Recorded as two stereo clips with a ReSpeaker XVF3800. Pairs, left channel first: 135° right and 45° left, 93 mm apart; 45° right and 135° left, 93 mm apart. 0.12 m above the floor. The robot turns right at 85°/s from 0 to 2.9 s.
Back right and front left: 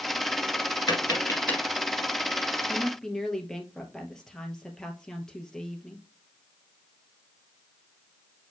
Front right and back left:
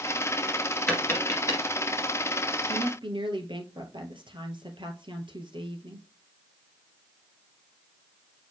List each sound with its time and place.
0.9 s tapping: 125° right, 1.9 m; by 1.6 s 60° right, 1.9 m
2.7 s a woman speaking: 125° left, 2 m; by 6.1 s 140° left, 2 m